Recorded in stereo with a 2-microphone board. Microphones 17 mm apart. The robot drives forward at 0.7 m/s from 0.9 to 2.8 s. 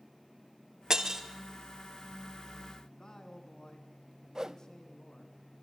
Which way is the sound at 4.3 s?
30° right (ahead or behind).